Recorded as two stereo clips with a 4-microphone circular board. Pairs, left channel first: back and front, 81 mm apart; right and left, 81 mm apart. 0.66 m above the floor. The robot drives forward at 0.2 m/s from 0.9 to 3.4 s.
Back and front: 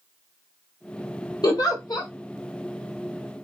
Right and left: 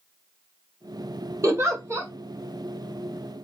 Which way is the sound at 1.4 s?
145° left.